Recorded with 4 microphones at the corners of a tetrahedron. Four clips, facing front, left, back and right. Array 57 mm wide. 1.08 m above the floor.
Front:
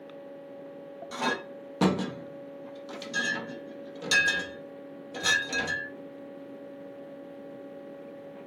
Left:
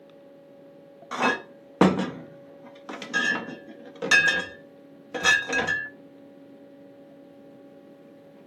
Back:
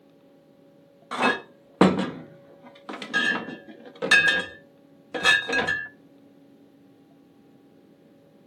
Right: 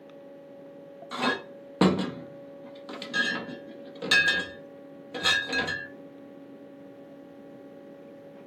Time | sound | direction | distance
1.1 | a clink | 150° left | 0.5 m